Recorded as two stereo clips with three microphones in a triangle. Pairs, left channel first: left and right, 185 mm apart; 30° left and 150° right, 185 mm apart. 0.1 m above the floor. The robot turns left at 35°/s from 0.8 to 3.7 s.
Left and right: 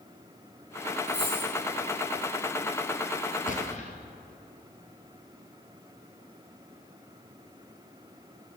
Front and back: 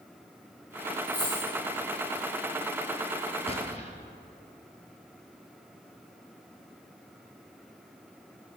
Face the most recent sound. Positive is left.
turn(degrees=65)